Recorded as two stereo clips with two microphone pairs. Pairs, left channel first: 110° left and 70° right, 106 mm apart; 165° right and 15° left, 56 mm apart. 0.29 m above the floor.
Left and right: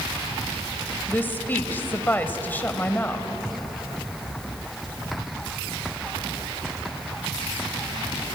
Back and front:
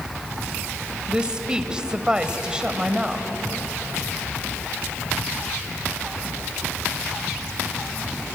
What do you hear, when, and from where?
1.1 s a woman speaking: 65° left, 1.6 m